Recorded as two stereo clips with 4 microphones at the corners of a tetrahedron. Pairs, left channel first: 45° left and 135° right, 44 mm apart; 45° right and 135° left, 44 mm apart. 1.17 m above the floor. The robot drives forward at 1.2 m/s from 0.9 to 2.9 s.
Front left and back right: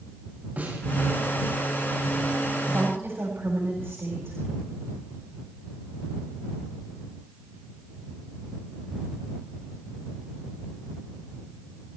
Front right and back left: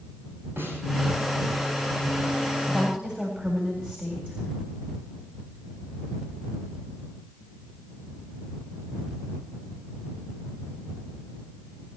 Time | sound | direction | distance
0.6 | a snare drum | 170° left | 7 m
2.7 | a woman speaking | 160° right | 4 m